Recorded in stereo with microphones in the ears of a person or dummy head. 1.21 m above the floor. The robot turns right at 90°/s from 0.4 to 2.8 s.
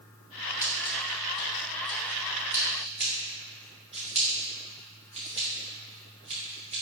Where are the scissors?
15° left (ahead or behind), 1.1 m; by 6.8 s 25° right (ahead or behind), 1.1 m.